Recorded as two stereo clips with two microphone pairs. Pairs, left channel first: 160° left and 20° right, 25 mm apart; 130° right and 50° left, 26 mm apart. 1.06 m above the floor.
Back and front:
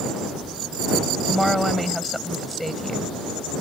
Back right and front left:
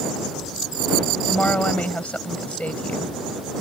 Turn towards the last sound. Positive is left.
turn(degrees=-115)